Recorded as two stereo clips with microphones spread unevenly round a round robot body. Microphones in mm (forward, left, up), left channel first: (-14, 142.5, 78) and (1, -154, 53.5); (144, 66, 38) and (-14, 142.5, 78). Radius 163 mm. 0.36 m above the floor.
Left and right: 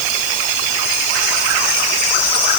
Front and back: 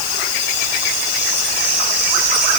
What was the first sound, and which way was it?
Only background noise.